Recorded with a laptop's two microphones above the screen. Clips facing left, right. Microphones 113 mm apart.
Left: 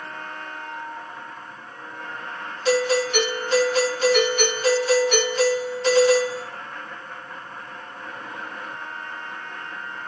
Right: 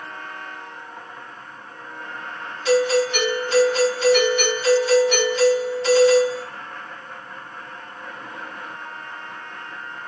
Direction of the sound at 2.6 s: 50° left (ahead or behind).